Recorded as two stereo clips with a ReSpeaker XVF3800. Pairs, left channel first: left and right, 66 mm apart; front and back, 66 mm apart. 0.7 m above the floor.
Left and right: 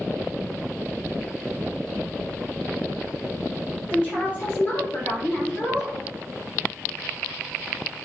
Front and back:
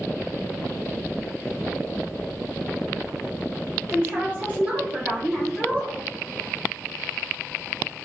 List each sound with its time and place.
3.9 s a woman speaking: 140° left, 1.3 m; by 6.0 s 60° left, 1.1 m